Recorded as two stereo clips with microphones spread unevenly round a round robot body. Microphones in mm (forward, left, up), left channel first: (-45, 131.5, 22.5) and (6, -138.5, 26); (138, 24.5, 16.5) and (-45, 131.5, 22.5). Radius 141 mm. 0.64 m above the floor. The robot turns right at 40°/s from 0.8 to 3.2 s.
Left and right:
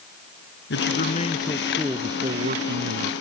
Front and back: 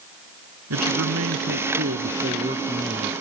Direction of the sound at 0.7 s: 150° left.